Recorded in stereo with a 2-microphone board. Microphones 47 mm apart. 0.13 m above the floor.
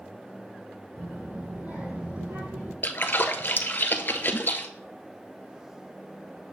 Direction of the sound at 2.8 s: 45° left (ahead or behind).